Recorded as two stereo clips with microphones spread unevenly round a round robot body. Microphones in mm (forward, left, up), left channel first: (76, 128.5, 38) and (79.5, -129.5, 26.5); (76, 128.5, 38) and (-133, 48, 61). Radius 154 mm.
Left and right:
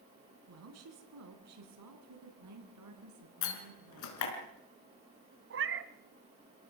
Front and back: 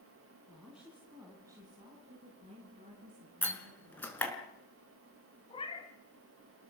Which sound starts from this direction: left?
A door slam, at 3.4 s.